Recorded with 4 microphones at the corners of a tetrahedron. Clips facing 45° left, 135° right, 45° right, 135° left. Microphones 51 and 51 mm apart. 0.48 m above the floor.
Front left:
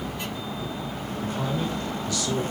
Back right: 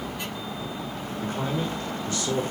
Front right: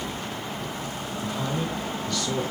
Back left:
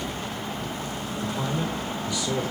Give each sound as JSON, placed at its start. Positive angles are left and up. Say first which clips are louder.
{"t": 1.2, "sound": "a man speaking", "louder": "even, even", "azimuth_deg": -155, "distance_m": 1.0}